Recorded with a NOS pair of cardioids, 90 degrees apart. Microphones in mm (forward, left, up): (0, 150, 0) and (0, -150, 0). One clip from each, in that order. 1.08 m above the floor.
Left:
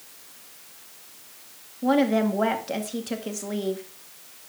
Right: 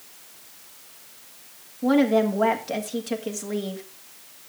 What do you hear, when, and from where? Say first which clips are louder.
1.8 s a woman speaking: right 2 dB; straight ahead, 1.8 m